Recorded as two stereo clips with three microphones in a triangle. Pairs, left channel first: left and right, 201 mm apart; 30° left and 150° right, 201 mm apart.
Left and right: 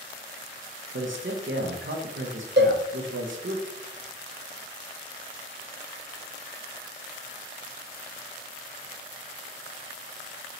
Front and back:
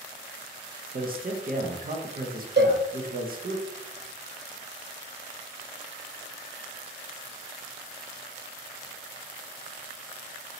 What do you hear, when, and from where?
0.9 s a man speaking: 105° right, 0.6 m
2.6 s a cowbell: 120° right, 0.6 m